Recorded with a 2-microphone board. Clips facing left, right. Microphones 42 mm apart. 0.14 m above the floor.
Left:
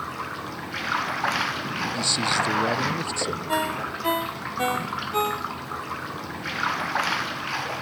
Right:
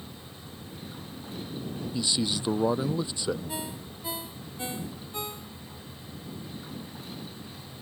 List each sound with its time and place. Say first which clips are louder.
0.0 s running water: left 14 dB; 85° left
1.9 s a man speaking: left 4 dB; 15° right (ahead or behind)
3.5 s a ringtone: left 12 dB; 45° left (ahead or behind)